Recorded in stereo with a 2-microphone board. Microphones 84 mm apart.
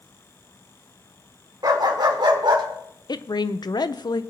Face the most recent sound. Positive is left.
turn(degrees=55)  # may be behind; listen again after turning